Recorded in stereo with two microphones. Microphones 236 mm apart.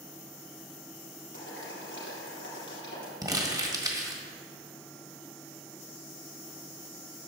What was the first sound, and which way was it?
Boiling, 55° left (ahead or behind).